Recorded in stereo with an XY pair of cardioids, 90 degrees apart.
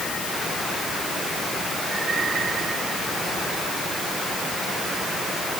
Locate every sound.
Only background noise.